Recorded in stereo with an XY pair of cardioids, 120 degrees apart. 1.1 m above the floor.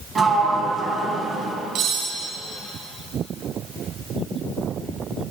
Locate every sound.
0.1 s a sliding door: 25° right, 3.5 m
1.8 s cutlery clinking: 70° right, 4.5 m